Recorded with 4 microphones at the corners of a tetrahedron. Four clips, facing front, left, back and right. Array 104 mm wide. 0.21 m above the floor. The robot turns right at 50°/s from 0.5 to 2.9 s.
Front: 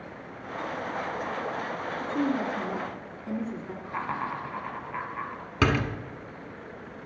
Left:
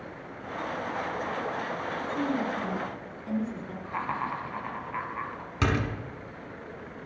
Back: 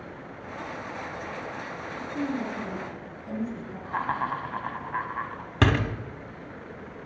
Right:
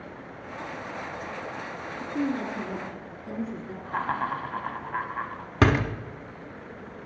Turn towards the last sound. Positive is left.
turn(degrees=-105)